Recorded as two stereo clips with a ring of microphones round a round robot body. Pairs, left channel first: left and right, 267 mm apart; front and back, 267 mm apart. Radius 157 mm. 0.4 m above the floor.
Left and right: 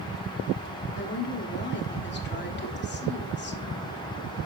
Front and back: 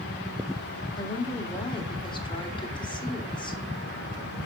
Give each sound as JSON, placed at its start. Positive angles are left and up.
{"t": 1.0, "sound": "a woman speaking", "azimuth_deg": 65, "distance_m": 1.7}